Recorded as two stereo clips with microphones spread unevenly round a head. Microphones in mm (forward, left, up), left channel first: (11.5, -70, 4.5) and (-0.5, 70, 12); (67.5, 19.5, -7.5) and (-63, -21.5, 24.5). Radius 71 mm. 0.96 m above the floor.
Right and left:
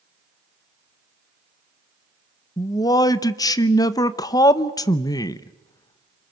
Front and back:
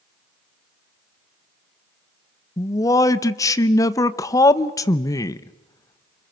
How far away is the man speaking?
About 0.8 m.